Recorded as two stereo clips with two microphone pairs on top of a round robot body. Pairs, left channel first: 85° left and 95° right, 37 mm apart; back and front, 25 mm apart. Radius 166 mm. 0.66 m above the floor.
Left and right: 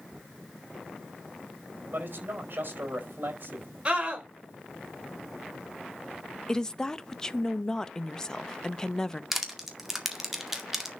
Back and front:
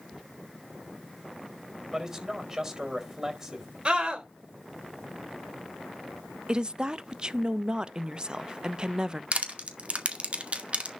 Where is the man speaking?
65° right, 4.5 m.